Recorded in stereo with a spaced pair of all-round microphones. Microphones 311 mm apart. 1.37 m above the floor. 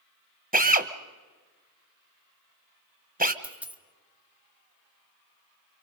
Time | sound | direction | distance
0.5 | a drill | 30° right (ahead or behind) | 1.0 m
3.4 | a dropped coin | 5° right (ahead or behind) | 1.0 m